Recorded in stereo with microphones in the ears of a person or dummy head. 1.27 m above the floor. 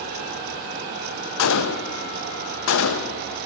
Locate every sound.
1.4 s a gunshot: 70° left (ahead or behind), 0.6 m